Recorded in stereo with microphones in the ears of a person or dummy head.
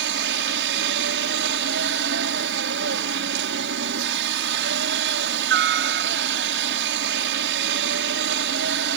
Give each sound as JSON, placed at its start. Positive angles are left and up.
{"t": 0.0, "sound": "a helicopter", "side_deg": -50}